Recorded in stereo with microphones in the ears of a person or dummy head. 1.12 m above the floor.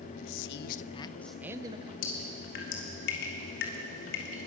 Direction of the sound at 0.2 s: 75° left (ahead or behind).